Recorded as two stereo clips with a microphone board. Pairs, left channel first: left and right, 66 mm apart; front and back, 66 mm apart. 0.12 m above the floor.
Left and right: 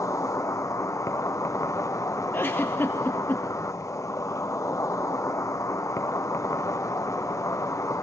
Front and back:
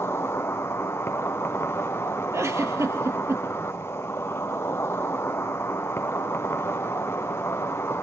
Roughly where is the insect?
Ahead left.